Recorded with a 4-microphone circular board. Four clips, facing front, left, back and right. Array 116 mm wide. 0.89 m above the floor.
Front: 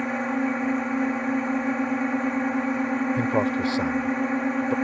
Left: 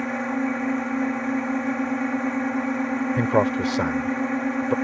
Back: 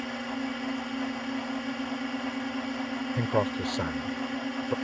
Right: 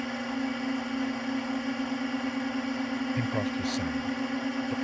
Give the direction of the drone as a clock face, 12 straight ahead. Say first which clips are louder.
Left 7 dB, front 8 dB; 11 o'clock.